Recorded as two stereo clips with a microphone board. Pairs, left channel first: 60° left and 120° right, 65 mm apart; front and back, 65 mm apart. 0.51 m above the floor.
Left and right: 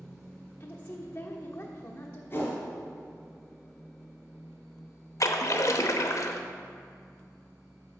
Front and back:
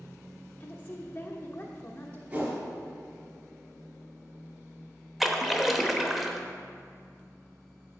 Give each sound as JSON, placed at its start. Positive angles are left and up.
{"t": 0.6, "sound": "a woman speaking", "azimuth_deg": 35, "distance_m": 1.1}
{"t": 2.3, "sound": "a whoosh", "azimuth_deg": 120, "distance_m": 3.5}
{"t": 5.2, "sound": "a splash", "azimuth_deg": 90, "distance_m": 0.8}